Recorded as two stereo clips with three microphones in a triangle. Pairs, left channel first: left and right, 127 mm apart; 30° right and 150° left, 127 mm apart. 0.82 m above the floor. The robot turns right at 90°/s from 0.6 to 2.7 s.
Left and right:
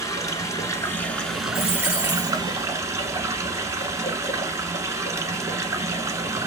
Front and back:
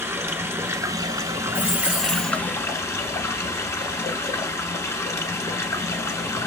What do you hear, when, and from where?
0.0 s running water: 110° left, 0.8 m; by 6.5 s 65° right, 0.8 m
1.5 s a dropped coin: 135° right, 3.5 m; by 2.4 s 60° right, 3.5 m